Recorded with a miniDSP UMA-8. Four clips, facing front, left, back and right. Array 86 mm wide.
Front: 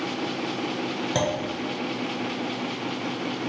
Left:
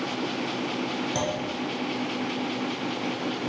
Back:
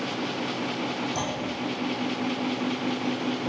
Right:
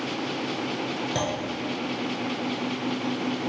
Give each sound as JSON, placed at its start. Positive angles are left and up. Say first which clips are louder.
{"t": 1.1, "sound": "a clunk", "louder": "right 1 dB, front 5 dB", "azimuth_deg": -10, "distance_m": 0.5}